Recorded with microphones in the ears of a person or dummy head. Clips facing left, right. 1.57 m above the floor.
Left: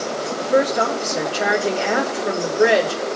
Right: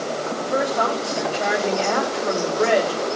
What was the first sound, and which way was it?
A woman speaking, 20° left (ahead or behind).